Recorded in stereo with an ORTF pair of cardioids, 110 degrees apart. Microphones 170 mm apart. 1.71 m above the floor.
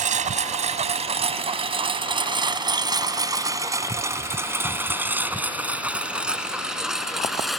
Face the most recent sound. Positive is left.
turn(degrees=0)